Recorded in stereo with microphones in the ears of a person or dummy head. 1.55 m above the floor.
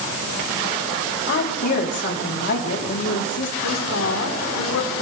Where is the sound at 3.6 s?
80° left, 4 m.